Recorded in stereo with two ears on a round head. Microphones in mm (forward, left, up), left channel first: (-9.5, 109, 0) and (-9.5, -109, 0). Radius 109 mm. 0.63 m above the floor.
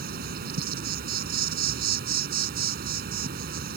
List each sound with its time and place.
0.0 s an insect: 40° right (ahead or behind)